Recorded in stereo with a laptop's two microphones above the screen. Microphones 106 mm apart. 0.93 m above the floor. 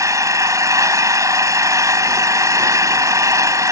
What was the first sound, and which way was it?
An engine running, 30° right (ahead or behind).